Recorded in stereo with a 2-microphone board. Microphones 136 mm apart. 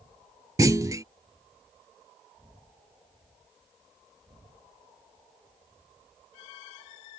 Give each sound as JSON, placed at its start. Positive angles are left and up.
{"t": 0.6, "sound": "a clunk", "side_deg": -25}